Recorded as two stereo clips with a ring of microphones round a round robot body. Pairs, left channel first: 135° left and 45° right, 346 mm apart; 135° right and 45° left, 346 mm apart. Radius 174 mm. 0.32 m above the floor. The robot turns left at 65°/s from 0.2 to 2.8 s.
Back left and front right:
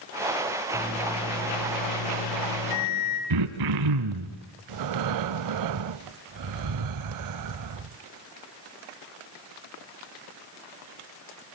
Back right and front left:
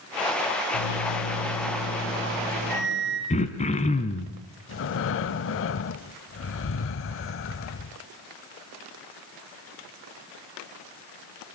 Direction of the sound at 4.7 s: 80° right.